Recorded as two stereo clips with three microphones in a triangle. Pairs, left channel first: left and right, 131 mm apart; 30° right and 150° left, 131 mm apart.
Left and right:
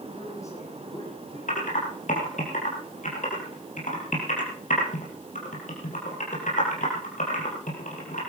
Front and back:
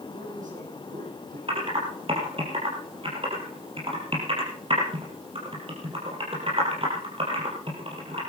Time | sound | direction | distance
0.1 | a man speaking | 155° left | 8 m
1.5 | typing on a keyboard | 105° left | 5.5 m